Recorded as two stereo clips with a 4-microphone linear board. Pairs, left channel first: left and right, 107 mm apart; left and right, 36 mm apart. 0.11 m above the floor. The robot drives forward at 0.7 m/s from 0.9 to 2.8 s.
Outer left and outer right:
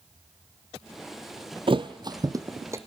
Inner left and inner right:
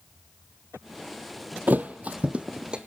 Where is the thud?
55° right (ahead or behind), 0.7 m; by 2.8 s 25° right (ahead or behind), 1.2 m.